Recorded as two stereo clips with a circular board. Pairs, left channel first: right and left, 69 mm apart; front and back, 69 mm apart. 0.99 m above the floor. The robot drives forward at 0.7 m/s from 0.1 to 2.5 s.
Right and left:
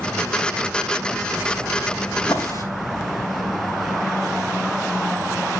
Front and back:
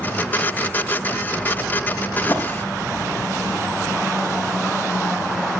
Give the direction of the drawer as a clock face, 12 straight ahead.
2 o'clock.